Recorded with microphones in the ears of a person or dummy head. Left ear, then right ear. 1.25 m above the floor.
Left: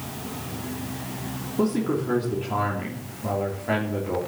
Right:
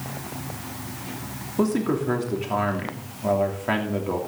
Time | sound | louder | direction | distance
1.6 | a man speaking | right 1 dB | 30° right (ahead or behind) | 3 m